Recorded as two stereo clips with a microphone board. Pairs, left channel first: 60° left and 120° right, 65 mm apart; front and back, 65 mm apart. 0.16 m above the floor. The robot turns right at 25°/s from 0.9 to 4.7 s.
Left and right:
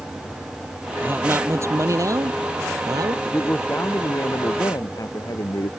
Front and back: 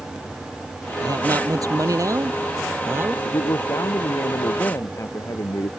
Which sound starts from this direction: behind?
A man speaking, at 1.0 s.